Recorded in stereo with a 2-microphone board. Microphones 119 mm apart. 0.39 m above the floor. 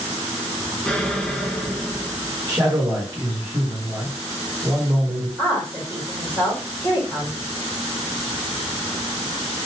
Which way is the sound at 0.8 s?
5° left (ahead or behind).